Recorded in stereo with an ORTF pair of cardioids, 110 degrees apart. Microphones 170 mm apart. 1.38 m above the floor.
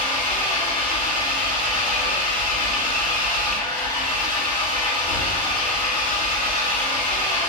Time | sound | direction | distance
0.0 | an engine running | 50° left | 1.6 m